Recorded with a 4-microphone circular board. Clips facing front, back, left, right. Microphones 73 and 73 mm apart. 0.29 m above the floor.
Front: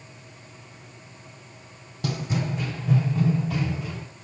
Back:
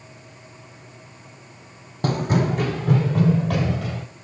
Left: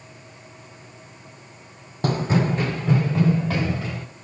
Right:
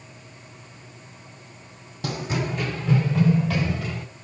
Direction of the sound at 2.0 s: 135° left.